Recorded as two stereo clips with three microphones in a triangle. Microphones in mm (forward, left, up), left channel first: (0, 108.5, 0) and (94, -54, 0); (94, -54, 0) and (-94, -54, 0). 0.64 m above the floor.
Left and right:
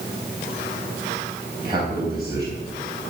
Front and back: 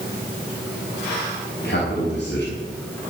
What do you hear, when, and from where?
1.6 s a man speaking: 10° left, 4.5 m